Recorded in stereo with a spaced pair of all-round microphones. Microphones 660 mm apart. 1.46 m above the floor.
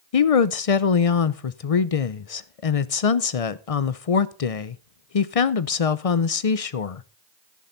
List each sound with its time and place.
0.1 s a woman speaking: 60° left (ahead or behind), 0.7 m